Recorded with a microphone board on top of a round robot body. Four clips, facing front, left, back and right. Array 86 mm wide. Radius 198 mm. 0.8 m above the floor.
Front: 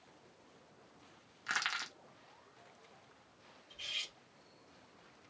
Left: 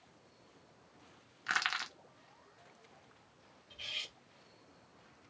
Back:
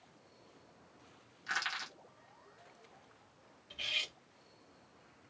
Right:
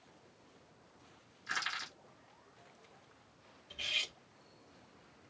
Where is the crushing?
75° left, 1.0 m.